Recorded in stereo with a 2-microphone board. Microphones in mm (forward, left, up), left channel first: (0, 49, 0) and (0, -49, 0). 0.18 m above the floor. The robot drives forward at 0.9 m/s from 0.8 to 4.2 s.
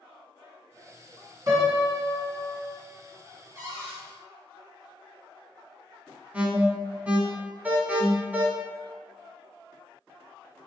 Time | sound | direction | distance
1.5 | a piano | 40° right (ahead or behind) | 1.8 m
3.5 | a cupboard door | 35° right (ahead or behind) | 1.6 m
6.3 | an alarm | 15° right (ahead or behind) | 0.8 m